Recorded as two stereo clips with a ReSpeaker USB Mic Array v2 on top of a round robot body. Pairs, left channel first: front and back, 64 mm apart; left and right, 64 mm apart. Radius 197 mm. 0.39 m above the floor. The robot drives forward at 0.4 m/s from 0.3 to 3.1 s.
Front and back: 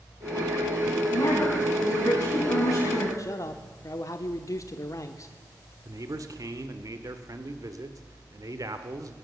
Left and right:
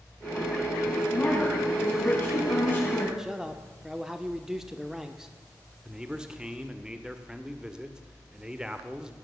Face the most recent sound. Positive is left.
turn(degrees=-170)